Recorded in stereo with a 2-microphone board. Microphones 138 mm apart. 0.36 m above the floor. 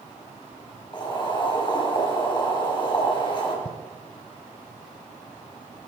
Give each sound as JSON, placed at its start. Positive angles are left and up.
{"t": 0.9, "sound": "boiling", "side_deg": 35, "distance_m": 5.0}
{"t": 3.6, "sound": "writing", "side_deg": 50, "distance_m": 0.9}